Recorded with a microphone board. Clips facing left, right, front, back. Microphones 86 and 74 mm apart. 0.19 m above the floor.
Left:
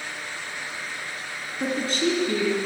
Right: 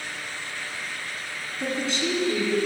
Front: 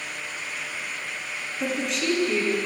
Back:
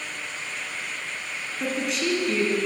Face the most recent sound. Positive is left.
turn(degrees=90)